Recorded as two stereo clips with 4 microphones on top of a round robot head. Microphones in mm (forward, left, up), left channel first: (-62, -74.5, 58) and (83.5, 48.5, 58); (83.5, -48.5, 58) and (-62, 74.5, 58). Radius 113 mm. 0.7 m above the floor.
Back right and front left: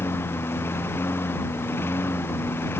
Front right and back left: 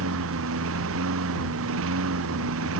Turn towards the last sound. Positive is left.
turn(degrees=140)